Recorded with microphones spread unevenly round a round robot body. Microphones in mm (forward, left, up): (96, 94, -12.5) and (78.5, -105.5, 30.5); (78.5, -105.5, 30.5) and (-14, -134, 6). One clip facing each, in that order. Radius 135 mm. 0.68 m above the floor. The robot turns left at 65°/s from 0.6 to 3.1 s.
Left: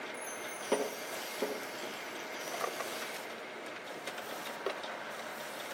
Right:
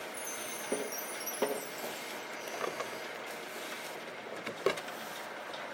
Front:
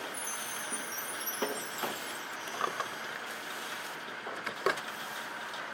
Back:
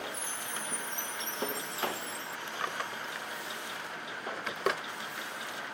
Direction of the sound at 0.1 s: 70° right.